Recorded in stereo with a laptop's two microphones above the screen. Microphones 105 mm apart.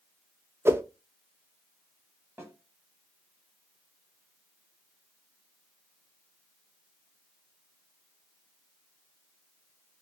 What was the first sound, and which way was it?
A whoosh, 25° right (ahead or behind).